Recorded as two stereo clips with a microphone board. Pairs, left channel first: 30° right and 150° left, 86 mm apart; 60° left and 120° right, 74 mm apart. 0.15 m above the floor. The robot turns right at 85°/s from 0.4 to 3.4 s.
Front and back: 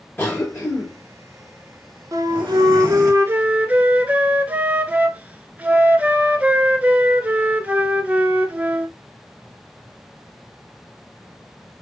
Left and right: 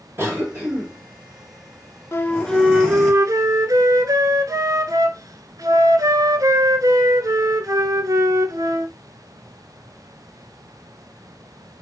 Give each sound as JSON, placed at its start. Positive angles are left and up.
{"t": 0.2, "sound": "a cough", "azimuth_deg": -80, "distance_m": 2.5}
{"t": 2.1, "sound": "a flute", "azimuth_deg": 105, "distance_m": 0.6}